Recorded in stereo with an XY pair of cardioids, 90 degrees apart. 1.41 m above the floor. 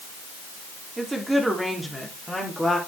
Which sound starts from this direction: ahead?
A woman speaking, at 1.0 s.